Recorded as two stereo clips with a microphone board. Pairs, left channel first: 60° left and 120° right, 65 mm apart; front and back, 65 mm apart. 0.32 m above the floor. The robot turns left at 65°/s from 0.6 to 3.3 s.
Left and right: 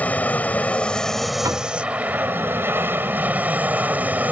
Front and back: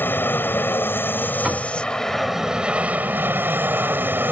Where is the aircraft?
15° left; by 4.3 s 160° right.